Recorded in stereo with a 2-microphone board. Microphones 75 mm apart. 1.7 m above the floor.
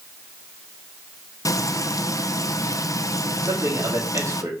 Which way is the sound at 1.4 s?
50° left (ahead or behind).